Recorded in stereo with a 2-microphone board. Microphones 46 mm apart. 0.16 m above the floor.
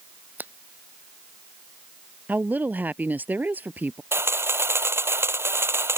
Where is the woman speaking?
40° right (ahead or behind).